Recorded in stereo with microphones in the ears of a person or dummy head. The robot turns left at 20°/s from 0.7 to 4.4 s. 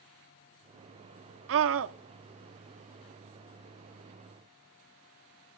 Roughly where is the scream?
Right.